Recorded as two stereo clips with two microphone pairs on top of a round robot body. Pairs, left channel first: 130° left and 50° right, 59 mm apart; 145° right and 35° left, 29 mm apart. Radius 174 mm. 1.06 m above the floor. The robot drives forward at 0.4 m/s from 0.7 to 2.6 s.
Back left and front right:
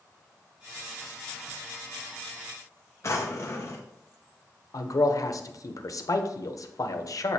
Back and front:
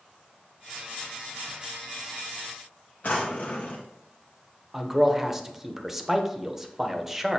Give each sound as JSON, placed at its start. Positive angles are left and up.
{"t": 3.0, "sound": "a drawer", "azimuth_deg": 180, "distance_m": 0.8}
{"t": 4.7, "sound": "a man speaking", "azimuth_deg": 115, "distance_m": 0.9}